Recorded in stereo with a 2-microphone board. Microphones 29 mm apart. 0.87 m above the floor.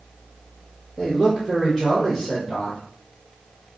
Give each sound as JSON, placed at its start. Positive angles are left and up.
{"t": 1.0, "sound": "a man speaking", "side_deg": -25, "distance_m": 1.2}